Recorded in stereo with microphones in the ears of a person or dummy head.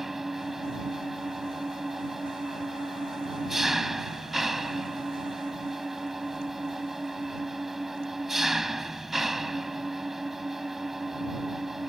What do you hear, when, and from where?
0.0 s an engine running: 5° right (ahead or behind)